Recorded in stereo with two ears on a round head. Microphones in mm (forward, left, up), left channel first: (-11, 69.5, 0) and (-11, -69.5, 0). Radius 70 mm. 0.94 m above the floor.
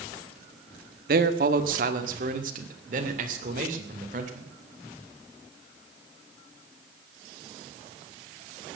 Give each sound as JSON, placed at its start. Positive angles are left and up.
{"t": 1.1, "sound": "a man speaking", "side_deg": -60, "distance_m": 1.3}